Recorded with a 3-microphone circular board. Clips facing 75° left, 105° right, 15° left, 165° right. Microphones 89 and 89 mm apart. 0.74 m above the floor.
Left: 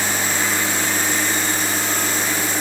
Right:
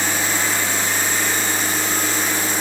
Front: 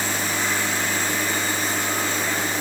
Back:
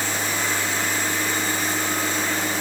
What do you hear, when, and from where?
Only background noise.